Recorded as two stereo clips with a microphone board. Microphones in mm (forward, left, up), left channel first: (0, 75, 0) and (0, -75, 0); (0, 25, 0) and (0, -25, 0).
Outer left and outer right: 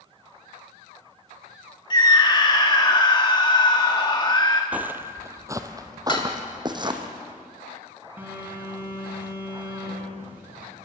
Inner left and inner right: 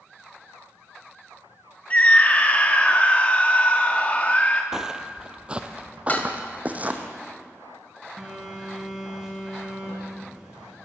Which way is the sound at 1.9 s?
30° left (ahead or behind).